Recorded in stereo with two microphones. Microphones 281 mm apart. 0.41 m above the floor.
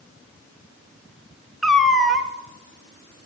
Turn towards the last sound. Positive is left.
turn(degrees=0)  # may be behind; listen again after turning